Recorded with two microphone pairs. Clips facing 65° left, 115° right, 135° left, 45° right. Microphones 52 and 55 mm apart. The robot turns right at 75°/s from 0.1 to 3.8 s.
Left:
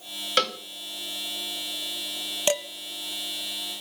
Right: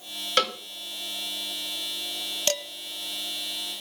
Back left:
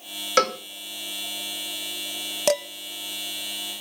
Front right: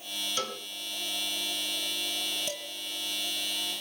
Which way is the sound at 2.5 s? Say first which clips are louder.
Left 4 dB, back left 16 dB; 135° left.